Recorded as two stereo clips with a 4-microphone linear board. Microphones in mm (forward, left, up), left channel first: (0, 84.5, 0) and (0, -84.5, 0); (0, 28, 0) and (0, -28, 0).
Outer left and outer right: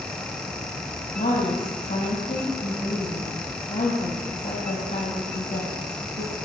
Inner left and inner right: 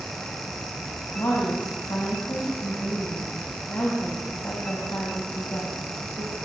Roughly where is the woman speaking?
Left.